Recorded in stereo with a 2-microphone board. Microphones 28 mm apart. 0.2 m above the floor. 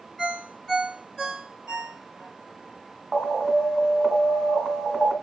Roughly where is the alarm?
Centre.